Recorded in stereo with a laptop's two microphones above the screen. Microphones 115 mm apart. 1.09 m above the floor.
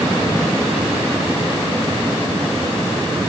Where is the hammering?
No hammering in this recording.